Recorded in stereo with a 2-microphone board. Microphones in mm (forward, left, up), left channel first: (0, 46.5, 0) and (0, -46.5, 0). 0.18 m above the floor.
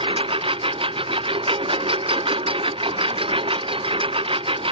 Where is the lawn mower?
80° right.